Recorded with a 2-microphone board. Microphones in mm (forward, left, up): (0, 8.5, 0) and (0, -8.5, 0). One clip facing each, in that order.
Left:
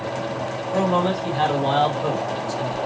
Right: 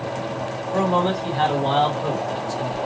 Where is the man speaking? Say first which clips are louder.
Even; 30° left (ahead or behind), 1.4 m.